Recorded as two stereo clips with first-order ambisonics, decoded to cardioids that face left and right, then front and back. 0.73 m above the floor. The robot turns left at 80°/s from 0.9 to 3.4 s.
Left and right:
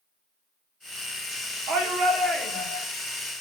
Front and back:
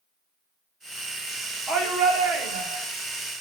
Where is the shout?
115° right, 2.0 m; by 2.9 s 150° left, 2.0 m.